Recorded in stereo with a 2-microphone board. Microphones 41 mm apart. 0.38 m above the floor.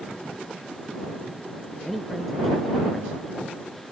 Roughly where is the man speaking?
Centre.